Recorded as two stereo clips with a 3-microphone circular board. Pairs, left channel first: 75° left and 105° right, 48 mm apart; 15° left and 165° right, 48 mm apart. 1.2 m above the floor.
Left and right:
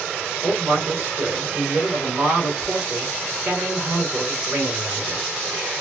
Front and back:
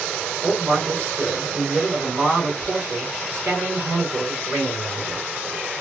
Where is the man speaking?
125° right, 2.5 m.